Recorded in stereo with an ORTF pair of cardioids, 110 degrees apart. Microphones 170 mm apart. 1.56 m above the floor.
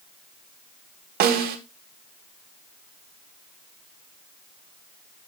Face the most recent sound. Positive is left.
turn(degrees=-70)